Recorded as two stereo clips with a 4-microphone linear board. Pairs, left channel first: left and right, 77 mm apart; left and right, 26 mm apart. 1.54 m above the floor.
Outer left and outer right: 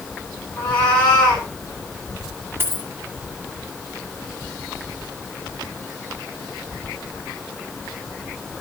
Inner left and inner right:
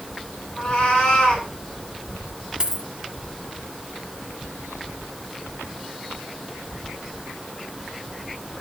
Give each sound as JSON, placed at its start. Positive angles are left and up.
{"t": 0.6, "sound": "a cat meowing", "side_deg": 15, "distance_m": 4.0}
{"t": 2.6, "sound": "a dropped coin", "side_deg": -30, "distance_m": 1.6}